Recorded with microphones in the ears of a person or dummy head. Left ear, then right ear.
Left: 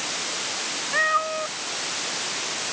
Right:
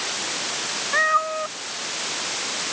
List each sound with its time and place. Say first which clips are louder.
0.9 s a cat meowing: right 2 dB; 35° right (ahead or behind)